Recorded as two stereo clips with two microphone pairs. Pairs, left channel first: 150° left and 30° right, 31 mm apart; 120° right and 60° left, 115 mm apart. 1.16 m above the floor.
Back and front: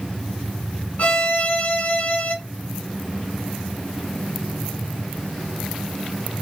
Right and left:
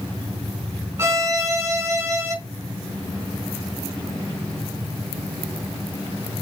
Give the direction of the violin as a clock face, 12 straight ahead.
8 o'clock.